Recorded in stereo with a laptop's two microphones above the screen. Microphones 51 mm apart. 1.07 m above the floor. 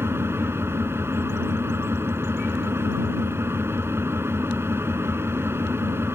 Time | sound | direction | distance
0.0 | an engine running | 60° right (ahead or behind) | ?